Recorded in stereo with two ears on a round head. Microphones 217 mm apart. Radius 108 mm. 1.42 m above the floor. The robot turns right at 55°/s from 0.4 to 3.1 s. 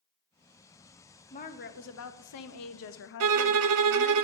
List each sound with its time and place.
1.3 s a woman speaking: 25° left, 0.6 m; by 4.2 s 125° left, 0.6 m
3.2 s a violin: 70° right (ahead or behind), 0.5 m